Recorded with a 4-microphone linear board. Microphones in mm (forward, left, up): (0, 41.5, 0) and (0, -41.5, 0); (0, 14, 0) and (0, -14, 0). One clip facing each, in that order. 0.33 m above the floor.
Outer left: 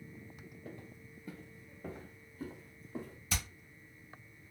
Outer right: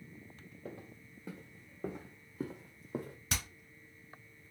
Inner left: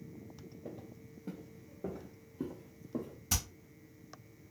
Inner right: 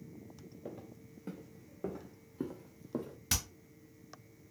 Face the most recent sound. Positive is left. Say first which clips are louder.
# even, inner right 1 dB
turn(degrees=-70)  # may be behind; listen again after turning